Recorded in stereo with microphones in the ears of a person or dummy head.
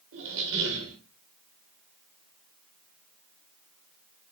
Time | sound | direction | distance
0.1 | a squeak | 65° right (ahead or behind) | 1.1 m